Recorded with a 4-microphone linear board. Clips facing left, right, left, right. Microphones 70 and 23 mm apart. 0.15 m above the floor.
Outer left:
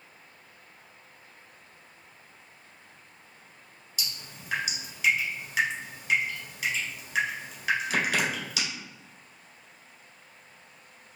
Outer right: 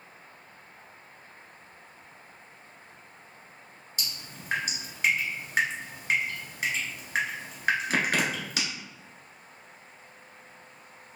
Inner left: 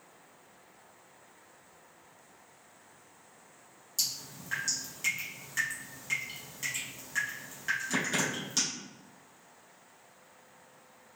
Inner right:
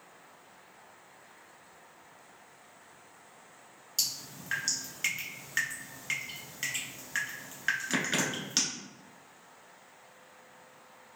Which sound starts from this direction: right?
Dripping, at 4.0 s.